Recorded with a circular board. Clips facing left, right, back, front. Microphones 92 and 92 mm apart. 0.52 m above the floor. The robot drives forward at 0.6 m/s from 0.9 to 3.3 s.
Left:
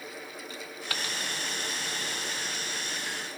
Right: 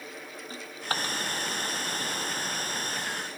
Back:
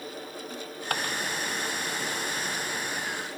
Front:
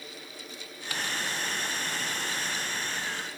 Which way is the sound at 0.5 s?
140° right.